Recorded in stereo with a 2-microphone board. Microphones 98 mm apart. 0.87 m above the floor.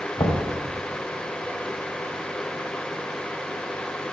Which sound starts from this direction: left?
Knocking, at 0.2 s.